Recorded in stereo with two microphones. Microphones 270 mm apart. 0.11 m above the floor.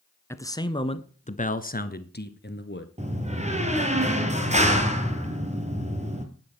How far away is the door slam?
About 2 m.